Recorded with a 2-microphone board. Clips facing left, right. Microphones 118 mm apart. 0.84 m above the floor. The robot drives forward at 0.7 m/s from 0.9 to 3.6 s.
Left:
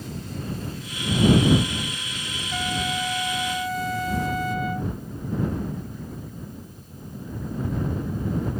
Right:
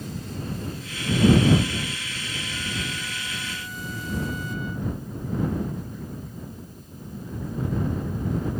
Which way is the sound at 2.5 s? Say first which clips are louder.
Left 8 dB; 85° left.